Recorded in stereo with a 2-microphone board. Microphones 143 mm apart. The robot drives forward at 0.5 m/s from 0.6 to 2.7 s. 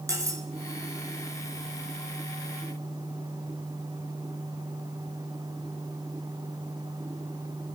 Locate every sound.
0.1 s cutlery clinking: 25° right (ahead or behind), 0.8 m